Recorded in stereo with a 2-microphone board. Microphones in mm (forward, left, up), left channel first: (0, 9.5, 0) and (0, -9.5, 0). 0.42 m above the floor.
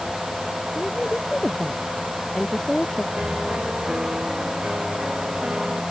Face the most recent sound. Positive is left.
turn(degrees=-55)  # may be behind; listen again after turning